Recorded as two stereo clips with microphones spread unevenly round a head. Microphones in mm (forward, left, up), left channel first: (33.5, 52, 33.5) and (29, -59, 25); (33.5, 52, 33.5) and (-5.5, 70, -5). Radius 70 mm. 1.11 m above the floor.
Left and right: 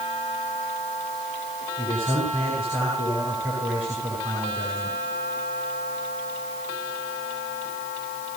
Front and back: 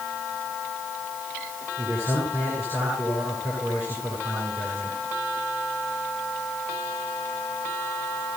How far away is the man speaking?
About 10 m.